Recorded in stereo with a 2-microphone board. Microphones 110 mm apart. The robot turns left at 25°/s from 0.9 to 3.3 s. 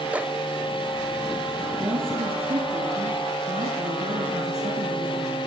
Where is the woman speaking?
45° right, 5.5 m; by 5.4 s 85° right, 5.5 m.